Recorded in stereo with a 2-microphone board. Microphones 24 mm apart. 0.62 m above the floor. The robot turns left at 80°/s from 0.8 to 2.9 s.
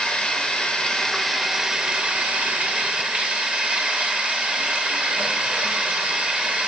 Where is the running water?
45° left, 0.8 m; by 6.7 s 125° right, 0.8 m.